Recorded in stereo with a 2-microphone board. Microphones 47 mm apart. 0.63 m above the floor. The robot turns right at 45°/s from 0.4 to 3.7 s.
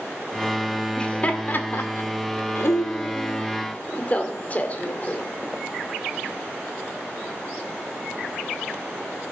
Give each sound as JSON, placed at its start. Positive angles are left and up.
{"t": 1.0, "sound": "laughter", "side_deg": 15, "distance_m": 2.0}